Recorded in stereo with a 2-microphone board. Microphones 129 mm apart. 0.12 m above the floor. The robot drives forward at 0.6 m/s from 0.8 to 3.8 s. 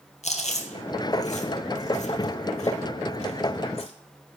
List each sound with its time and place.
0.2 s chewing: 60° left (ahead or behind), 2 m; by 3.9 s 50° left (ahead or behind), 2.5 m